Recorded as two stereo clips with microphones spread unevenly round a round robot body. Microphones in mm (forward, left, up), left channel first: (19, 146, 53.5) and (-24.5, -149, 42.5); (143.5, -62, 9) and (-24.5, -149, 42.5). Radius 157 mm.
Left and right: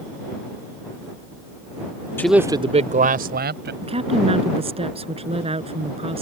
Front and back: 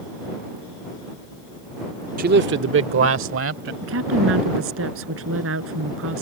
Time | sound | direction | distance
2.2 | a man speaking | 165° left | ?
3.8 | a woman speaking | 170° right | ?